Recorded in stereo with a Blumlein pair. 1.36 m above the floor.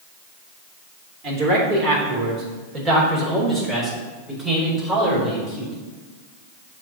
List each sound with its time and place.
1.2 s a man speaking: 35° right, 3.5 m; by 5.7 s straight ahead, 5 m